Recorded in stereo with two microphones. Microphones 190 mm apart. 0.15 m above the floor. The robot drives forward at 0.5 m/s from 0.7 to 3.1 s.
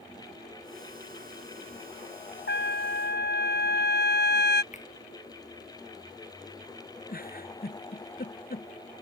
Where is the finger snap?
40° left (ahead or behind).